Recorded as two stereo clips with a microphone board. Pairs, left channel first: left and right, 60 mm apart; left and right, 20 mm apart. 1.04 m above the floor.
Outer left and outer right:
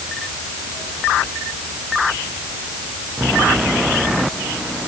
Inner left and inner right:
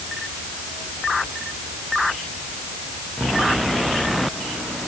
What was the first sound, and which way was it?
Only background noise.